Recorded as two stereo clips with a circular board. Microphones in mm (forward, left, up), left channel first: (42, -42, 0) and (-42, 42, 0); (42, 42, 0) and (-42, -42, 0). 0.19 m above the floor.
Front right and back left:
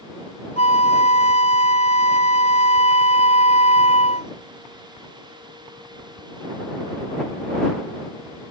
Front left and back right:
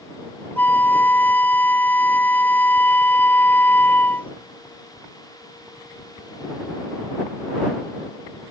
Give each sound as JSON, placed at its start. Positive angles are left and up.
{"t": 0.6, "sound": "a flute", "azimuth_deg": -30}